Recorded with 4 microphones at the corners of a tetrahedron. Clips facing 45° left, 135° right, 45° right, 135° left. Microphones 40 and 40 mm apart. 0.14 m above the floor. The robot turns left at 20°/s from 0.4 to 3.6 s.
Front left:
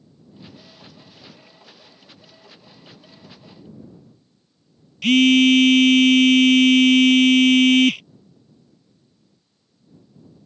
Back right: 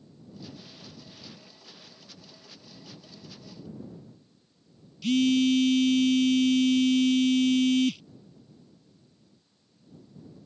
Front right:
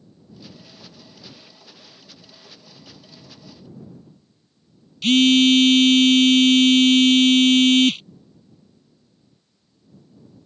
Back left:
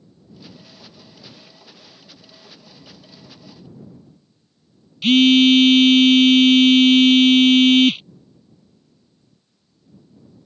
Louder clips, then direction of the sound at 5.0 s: Front left 9 dB, back left 2 dB; 55° left.